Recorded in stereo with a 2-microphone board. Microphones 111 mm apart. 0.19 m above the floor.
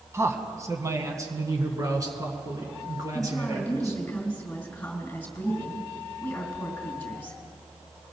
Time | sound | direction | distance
0.1 | a man speaking | 25° right (ahead or behind) | 1.2 m
3.1 | a woman speaking | 15° left (ahead or behind) | 3 m